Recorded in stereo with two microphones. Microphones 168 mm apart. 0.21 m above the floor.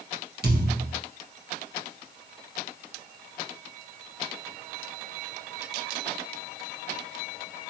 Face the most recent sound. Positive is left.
turn(degrees=-70)  # may be behind; listen again after turning